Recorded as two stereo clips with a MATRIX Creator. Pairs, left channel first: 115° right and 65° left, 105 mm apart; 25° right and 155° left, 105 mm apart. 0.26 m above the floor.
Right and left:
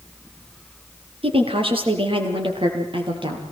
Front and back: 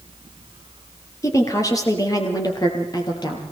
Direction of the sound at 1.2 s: 35° left.